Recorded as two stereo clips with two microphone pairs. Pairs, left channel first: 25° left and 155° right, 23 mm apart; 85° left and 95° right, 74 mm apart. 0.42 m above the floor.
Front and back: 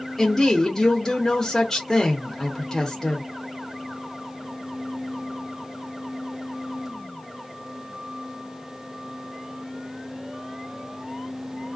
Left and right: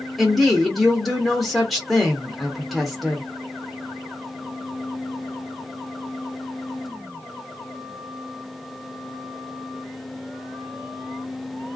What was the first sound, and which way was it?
A woman speaking, 5° left.